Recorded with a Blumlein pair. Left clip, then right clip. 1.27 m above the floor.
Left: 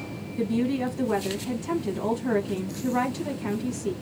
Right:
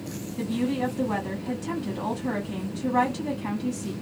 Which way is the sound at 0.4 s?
5° right.